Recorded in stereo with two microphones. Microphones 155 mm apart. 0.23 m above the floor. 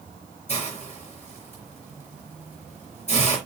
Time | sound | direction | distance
0.5 | a hiss | 50° left (ahead or behind) | 4.5 m